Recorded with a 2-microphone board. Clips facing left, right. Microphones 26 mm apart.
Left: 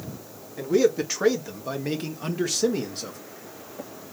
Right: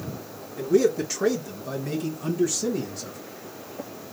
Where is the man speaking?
25° left (ahead or behind), 2 m; by 3.2 s 65° left (ahead or behind), 1.6 m.